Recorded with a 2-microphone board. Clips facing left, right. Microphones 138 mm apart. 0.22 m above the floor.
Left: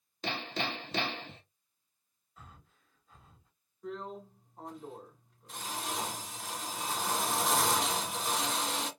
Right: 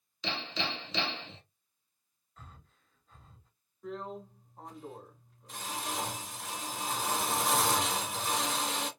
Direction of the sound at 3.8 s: Centre (ahead or behind).